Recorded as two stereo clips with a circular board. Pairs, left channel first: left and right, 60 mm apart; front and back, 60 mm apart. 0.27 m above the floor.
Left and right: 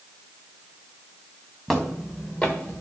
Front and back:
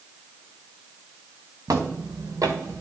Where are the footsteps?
175° left, 1.4 m; by 2.8 s 150° left, 1.6 m.